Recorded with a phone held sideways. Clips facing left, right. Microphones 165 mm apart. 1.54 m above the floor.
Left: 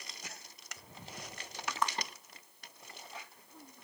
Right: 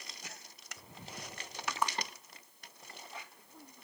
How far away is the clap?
About 2 m.